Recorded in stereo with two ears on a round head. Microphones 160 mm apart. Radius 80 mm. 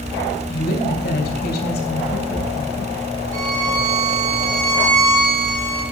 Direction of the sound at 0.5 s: 55° left (ahead or behind).